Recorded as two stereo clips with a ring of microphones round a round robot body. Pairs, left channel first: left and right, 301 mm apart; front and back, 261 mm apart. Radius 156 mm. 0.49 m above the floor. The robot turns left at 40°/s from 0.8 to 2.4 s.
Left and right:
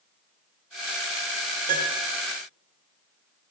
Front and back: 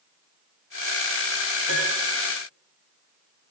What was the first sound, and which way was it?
A piano, 155° right.